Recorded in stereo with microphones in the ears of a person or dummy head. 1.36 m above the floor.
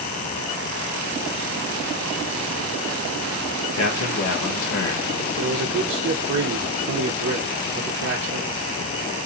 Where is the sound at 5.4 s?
55° right (ahead or behind), 0.8 m.